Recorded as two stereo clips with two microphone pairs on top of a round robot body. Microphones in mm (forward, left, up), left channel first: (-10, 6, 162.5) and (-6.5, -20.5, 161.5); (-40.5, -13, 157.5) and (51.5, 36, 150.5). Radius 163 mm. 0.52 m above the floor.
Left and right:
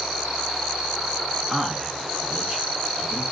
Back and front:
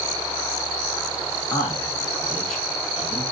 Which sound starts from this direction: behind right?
A man speaking, at 1.5 s.